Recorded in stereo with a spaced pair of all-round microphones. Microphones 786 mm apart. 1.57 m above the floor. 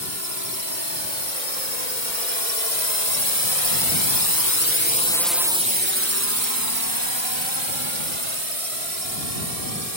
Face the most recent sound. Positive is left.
turn(degrees=-50)  # may be behind; listen again after turning